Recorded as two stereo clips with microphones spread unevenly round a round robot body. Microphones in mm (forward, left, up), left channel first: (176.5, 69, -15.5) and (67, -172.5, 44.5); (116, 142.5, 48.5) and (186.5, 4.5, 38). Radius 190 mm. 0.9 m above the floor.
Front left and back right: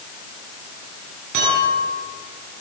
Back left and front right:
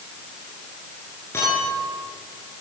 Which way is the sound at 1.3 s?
160° right.